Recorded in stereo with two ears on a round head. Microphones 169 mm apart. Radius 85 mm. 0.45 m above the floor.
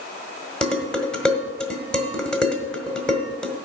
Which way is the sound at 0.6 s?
5° left (ahead or behind).